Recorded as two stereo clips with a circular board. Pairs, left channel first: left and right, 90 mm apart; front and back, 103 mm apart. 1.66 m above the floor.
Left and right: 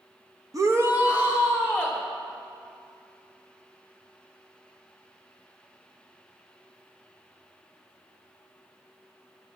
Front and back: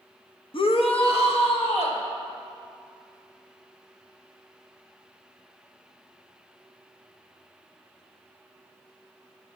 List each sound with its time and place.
0.5 s a shout: 35° right, 0.6 m; by 2.0 s 10° right, 2.5 m